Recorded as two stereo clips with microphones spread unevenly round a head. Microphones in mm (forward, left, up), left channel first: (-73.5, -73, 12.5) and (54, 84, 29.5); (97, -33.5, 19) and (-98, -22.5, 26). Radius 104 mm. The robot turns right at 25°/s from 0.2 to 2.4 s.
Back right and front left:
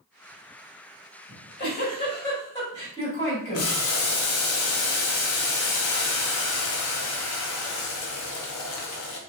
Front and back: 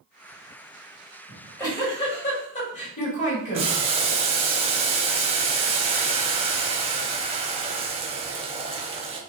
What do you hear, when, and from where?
1.3 s a giggle: 90° right, 1.8 m; by 3.7 s 60° right, 1.8 m
3.5 s boiling: 125° right, 0.7 m